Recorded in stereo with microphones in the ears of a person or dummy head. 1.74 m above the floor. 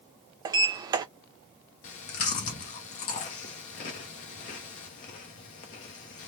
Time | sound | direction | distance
0.5 | a sliding door | 25° right (ahead or behind) | 0.5 m
1.8 | chewing | 40° left (ahead or behind) | 0.6 m